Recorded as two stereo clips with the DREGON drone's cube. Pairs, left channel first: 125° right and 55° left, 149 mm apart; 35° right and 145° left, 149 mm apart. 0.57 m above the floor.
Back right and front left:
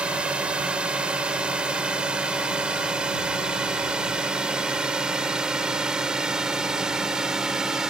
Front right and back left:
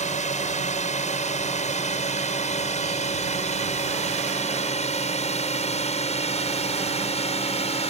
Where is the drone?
25° right; by 7.9 s 30° right.